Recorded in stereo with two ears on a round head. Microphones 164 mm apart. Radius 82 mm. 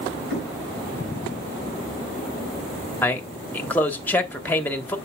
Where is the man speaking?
10° left (ahead or behind), 1.5 m.